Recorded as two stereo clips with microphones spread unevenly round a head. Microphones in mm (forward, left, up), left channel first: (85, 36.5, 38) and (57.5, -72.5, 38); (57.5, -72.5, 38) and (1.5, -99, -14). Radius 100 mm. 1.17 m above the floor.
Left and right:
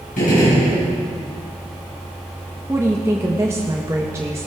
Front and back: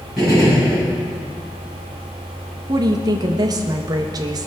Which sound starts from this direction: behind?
A woman speaking, at 2.7 s.